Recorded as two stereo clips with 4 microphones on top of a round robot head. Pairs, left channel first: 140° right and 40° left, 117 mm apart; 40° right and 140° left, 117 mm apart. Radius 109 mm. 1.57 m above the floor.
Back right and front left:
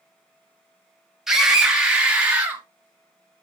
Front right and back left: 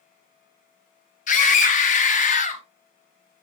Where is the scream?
45° right, 3.5 m; by 2.6 s 35° right, 4 m.